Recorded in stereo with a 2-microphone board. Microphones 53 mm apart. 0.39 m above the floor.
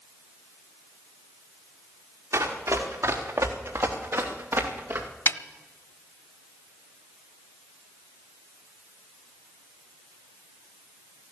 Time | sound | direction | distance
2.3 | running footsteps | 80° right | 3.5 m
5.3 | a snare drum | 60° left (ahead or behind) | 0.6 m